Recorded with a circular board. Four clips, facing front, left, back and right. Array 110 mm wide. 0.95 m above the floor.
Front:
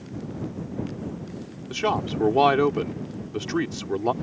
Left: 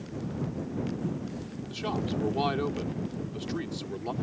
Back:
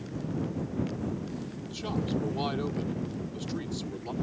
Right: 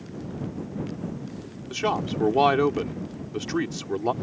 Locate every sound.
1.7 s a man speaking: 35° right